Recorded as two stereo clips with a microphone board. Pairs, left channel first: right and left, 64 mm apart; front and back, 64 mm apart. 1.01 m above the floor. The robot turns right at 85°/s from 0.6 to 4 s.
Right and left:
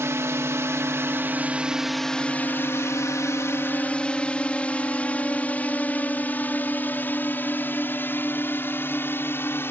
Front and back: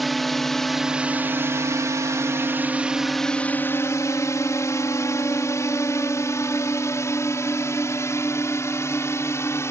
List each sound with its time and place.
0.0 s a drone: 90° left; by 9.7 s 40° right